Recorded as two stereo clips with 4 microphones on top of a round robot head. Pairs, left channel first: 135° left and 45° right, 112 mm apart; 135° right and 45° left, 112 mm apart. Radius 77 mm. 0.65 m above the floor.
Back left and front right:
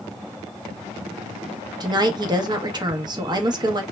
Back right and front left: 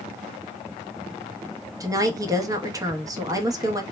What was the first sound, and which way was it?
A woman speaking, 5° right.